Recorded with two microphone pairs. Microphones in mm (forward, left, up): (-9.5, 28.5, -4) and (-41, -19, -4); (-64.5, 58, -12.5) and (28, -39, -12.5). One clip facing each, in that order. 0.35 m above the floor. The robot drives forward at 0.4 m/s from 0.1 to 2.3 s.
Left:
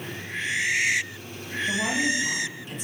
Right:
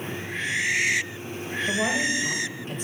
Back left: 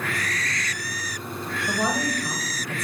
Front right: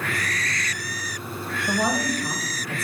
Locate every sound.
1.7 s a woman speaking: 120° right, 1.7 m; by 2.9 s 130° right, 1.8 m